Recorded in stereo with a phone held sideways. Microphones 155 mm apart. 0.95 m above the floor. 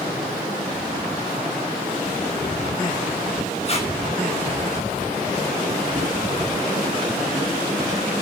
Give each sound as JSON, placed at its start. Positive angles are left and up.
{"t": 3.6, "sound": "tape being pulled", "side_deg": 40, "distance_m": 5.0}